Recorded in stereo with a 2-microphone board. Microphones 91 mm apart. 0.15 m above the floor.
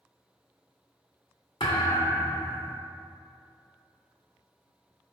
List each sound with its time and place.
1.6 s a thud: 65° left (ahead or behind), 0.8 m